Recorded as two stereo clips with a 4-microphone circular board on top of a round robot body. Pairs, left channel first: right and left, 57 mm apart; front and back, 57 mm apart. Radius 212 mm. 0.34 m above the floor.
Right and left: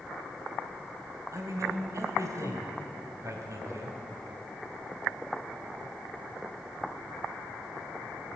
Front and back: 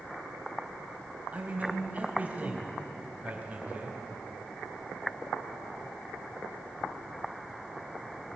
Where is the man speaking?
115° left, 3.5 m.